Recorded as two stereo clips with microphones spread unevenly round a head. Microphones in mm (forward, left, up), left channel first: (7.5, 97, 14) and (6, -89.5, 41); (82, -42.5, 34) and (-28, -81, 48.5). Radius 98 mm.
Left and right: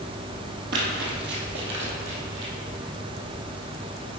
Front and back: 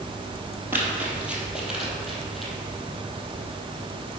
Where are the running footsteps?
95° right, 1.8 m; by 2.5 s 75° right, 2.5 m.